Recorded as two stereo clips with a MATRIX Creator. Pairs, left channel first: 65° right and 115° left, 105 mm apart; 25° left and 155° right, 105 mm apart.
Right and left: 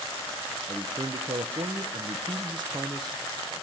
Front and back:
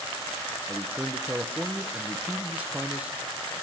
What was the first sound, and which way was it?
A man speaking, 130° left.